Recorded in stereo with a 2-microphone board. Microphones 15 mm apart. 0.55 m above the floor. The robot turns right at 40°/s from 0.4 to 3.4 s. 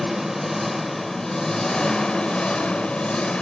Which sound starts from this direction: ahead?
An engine running, at 0.0 s.